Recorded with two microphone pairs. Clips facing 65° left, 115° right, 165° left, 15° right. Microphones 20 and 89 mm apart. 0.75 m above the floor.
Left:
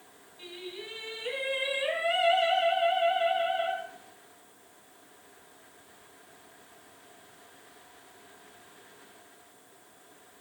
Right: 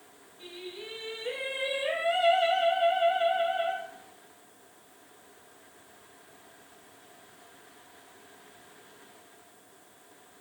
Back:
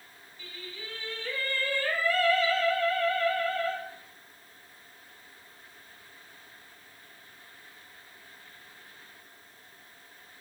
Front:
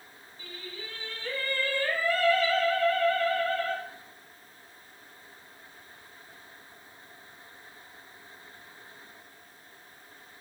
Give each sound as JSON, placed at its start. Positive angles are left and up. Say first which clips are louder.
{"t": 0.4, "sound": "singing", "louder": "even, front 1 dB", "azimuth_deg": 35, "distance_m": 1.4}